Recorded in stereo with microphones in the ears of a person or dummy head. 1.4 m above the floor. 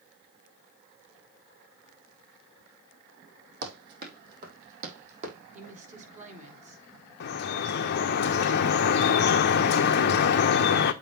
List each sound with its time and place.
3.6 s running footsteps: 60° right (ahead or behind), 3 m; by 5.3 s 40° right (ahead or behind), 3.5 m
5.5 s a woman speaking: 45° right (ahead or behind), 4 m
7.2 s dripping: 60° left (ahead or behind), 0.9 m